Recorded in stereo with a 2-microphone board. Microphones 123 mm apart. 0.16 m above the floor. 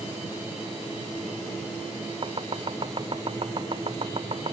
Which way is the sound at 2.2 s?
45° right (ahead or behind).